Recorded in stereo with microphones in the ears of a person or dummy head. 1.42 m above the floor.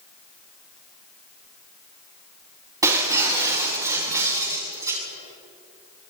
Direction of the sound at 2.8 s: 20° right (ahead or behind).